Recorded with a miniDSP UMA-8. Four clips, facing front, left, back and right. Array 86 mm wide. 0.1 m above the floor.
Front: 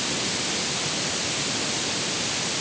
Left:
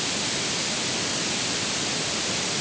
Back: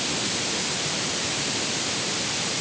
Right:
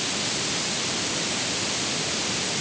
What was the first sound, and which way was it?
Only background noise.